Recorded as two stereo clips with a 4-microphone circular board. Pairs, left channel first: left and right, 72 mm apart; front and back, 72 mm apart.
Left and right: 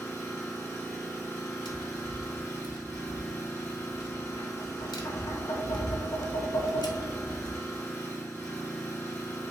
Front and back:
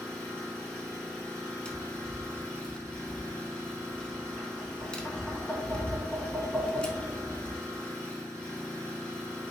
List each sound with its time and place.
0.0 s an engine running: 65° left, 1.9 m
1.6 s tapping: 75° left, 0.6 m